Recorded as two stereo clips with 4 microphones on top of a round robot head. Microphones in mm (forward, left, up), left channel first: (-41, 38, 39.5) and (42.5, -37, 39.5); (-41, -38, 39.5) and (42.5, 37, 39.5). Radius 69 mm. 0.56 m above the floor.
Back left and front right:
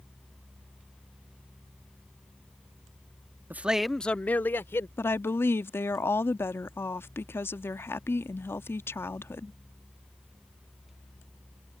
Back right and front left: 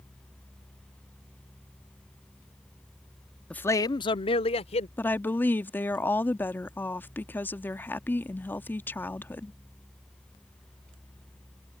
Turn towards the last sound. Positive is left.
turn(degrees=175)